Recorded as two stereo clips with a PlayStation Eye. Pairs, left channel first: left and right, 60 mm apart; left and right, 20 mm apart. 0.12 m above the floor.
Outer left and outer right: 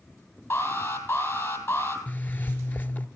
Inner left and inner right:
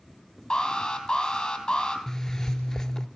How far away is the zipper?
About 0.7 m.